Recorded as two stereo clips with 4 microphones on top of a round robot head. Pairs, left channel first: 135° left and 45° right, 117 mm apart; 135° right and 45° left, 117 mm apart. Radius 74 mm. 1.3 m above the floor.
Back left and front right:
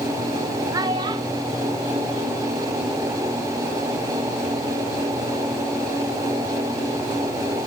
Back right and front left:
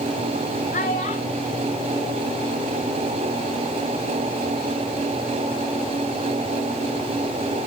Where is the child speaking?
105° right, 2 m; by 3.0 s 35° right, 1.4 m.